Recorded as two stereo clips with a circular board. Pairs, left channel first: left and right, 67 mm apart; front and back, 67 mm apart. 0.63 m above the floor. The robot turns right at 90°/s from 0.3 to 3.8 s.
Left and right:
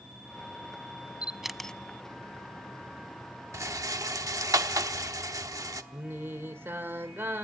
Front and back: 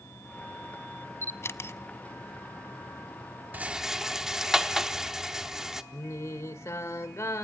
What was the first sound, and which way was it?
A camera shutter, 30° right.